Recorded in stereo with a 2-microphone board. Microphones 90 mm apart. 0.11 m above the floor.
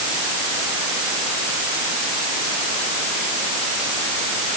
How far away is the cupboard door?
No cupboard door in this recording.